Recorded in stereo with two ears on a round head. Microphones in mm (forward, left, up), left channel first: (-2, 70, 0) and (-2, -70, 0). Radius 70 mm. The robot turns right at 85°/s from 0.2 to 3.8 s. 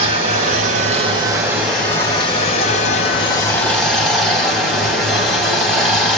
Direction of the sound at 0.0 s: 125° right.